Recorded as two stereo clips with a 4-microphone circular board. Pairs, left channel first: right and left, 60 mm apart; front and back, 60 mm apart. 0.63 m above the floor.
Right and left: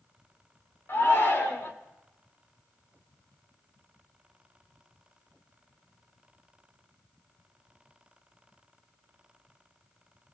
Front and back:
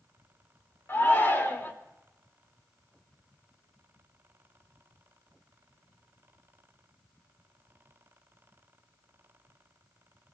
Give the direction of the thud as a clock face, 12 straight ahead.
No thud in this recording.